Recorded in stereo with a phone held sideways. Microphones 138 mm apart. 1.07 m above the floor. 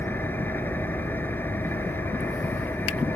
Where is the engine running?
15° left (ahead or behind).